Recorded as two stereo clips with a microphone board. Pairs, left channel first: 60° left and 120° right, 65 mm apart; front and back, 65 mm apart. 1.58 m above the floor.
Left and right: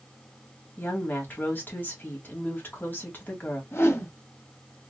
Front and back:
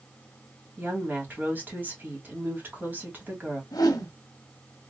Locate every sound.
0.8 s a woman speaking: 120° left, 2.0 m
3.7 s a whoosh: 10° left, 1.1 m